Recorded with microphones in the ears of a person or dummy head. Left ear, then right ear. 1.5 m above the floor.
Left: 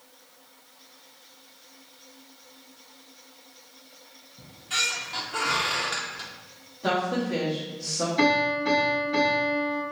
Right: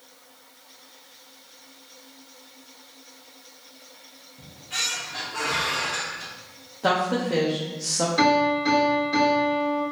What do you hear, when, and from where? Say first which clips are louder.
4.4 s a squeak: left 2 dB; 55° left (ahead or behind), 0.8 m
6.8 s a woman speaking: right 3 dB; 35° right (ahead or behind), 0.7 m
8.2 s a piano: right 2 dB; 55° right (ahead or behind), 1.9 m